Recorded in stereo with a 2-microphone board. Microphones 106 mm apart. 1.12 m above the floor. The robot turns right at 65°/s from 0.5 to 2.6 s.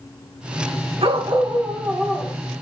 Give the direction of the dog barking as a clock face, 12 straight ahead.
2 o'clock.